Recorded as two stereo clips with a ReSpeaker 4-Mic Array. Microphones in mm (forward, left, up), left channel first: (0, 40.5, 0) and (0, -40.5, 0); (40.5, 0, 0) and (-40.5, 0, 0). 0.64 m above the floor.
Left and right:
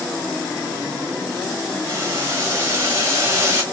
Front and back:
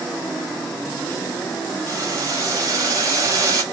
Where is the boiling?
140° right, 1.7 m.